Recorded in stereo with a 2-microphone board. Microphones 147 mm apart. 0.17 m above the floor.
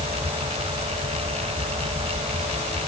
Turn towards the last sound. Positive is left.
No sound to turn to.